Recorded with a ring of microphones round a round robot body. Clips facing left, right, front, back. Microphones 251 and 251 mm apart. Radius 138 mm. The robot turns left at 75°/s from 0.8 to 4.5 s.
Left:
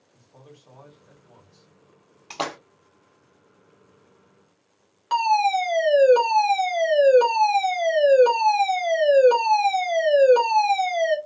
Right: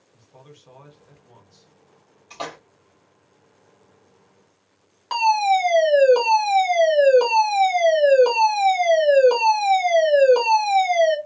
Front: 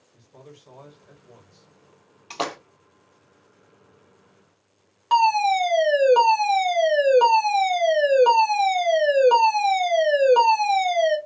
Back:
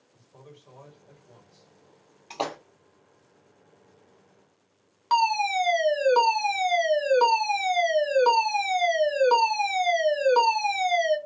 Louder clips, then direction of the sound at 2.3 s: Left 3 dB, front 2 dB; 75° left.